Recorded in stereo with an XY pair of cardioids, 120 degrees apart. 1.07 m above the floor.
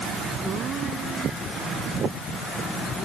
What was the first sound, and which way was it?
Only background noise.